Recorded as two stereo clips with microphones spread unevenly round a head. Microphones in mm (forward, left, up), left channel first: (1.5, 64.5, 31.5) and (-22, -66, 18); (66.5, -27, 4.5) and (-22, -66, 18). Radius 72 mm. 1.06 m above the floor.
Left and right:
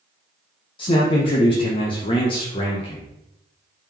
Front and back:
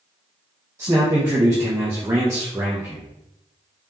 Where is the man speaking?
130° left, 0.6 m.